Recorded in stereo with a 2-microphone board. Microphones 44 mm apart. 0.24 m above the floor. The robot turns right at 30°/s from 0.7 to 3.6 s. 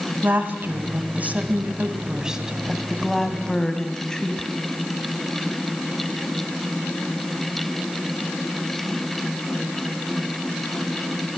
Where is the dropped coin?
No dropped coin in this recording.